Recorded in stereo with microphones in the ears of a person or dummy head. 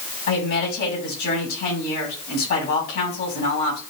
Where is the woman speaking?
50° left (ahead or behind), 4 m.